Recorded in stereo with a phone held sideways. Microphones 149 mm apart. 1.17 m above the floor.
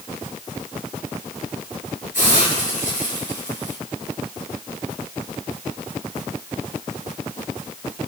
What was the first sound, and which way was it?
A hiss, 60° left (ahead or behind).